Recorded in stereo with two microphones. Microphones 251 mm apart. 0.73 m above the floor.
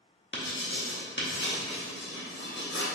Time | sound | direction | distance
0.3 | writing | 50° left (ahead or behind) | 0.8 m